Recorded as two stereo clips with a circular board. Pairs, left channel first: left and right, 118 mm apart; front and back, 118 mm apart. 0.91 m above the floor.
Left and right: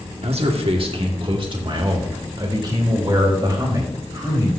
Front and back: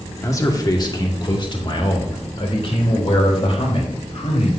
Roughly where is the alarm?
No alarm in this recording.